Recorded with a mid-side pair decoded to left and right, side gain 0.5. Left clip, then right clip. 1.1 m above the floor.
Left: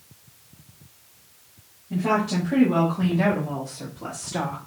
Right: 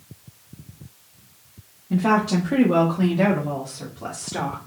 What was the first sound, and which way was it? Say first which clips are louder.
A woman speaking: right 3 dB; 45° right.